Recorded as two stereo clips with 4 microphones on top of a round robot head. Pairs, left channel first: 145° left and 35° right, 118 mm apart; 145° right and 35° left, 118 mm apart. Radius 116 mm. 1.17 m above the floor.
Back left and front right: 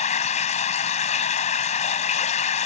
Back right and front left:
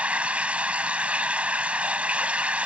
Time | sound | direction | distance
0.0 | running water | 115° left | ?